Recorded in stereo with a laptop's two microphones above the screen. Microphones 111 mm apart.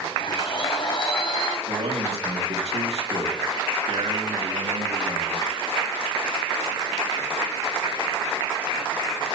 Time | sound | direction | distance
0.2 | a blender | 55° left (ahead or behind) | 1.8 m
1.7 | a man speaking | 75° right (ahead or behind) | 2.5 m